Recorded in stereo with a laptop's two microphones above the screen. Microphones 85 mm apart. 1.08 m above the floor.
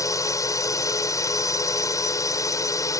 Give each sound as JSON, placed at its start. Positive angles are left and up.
{"t": 0.0, "sound": "a drone", "side_deg": 40}